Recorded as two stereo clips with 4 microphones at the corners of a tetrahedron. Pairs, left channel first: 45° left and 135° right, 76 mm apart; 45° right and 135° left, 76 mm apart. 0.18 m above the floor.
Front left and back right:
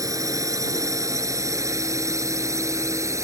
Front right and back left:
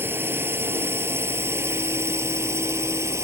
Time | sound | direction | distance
0.0 | a drone | 170° right | ?